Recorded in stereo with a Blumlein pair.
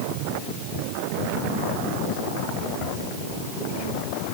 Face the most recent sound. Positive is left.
No sound to turn to.